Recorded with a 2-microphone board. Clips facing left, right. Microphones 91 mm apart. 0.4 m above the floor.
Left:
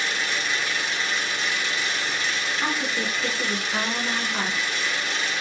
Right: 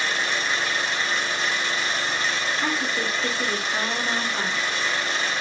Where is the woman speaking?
10° left (ahead or behind), 1.1 m.